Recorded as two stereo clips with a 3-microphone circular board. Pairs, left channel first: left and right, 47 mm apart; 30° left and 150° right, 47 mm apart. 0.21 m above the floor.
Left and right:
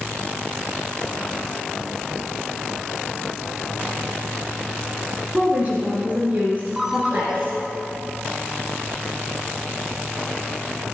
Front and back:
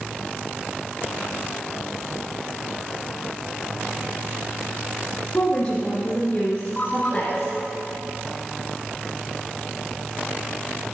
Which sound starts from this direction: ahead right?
A woman speaking, at 5.3 s.